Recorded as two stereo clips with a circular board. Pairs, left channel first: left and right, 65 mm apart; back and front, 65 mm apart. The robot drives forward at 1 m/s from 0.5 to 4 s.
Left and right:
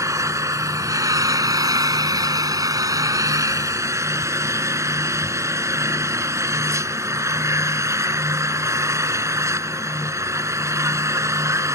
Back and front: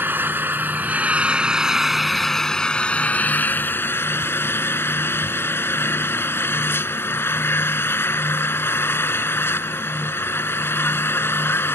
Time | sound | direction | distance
0.0 | an engine running | 55° right | ?